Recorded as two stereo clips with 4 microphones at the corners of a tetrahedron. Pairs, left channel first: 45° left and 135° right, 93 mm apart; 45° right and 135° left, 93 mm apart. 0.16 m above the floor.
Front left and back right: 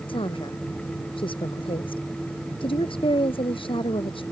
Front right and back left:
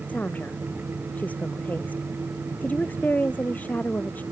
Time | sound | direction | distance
0.1 | a woman speaking | 25° left | ?